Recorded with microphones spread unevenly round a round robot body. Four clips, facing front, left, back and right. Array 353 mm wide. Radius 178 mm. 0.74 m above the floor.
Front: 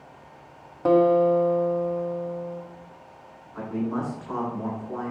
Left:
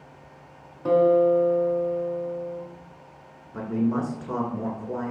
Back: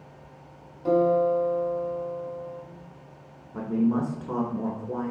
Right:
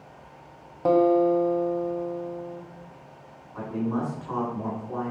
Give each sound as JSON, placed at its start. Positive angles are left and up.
{"t": 0.8, "sound": "a guitar", "azimuth_deg": -45, "distance_m": 1.4}
{"t": 3.5, "sound": "a man speaking", "azimuth_deg": 145, "distance_m": 2.5}